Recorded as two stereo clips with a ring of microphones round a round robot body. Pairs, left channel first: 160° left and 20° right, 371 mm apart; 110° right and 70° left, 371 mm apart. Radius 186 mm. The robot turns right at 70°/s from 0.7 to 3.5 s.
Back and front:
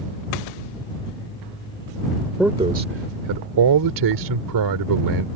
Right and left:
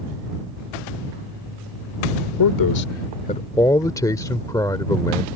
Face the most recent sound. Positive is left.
turn(degrees=-35)